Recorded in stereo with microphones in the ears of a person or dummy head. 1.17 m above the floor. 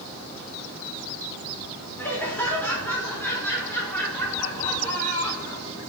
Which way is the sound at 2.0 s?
15° left (ahead or behind).